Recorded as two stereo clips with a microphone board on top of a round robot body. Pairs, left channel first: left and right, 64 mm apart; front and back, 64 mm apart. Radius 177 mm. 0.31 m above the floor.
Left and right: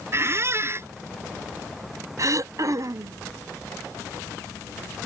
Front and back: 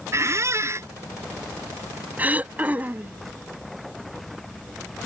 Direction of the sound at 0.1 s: 135° right.